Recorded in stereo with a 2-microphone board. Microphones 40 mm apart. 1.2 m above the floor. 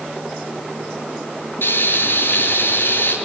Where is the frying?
60° left (ahead or behind), 8.5 m.